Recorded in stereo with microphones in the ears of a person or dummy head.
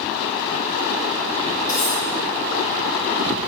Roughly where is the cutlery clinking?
Left.